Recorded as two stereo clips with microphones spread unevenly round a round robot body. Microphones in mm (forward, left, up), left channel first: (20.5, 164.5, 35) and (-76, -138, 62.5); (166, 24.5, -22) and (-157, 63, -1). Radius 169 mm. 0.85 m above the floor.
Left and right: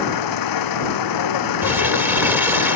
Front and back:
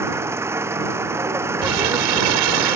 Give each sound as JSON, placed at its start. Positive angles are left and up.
{"t": 0.0, "sound": "an engine running", "azimuth_deg": 90}
{"t": 1.6, "sound": "crumpling", "azimuth_deg": 170}